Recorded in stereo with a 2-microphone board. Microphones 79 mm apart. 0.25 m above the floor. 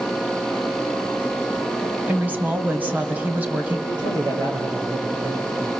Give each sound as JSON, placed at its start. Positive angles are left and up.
{"t": 2.1, "sound": "a woman speaking", "side_deg": -20, "distance_m": 1.8}
{"t": 3.9, "sound": "a man speaking", "side_deg": -80, "distance_m": 5.0}